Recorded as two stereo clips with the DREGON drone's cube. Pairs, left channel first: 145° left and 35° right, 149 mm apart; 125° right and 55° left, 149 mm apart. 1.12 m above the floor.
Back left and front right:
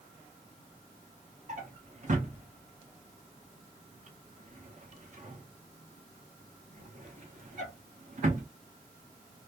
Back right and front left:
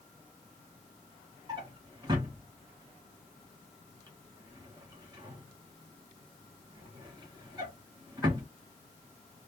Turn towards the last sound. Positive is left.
turn(degrees=-5)